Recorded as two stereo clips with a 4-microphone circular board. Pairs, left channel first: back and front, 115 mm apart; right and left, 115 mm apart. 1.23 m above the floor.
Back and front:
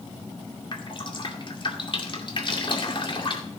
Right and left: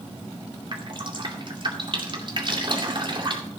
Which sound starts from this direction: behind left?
Dripping, at 0.7 s.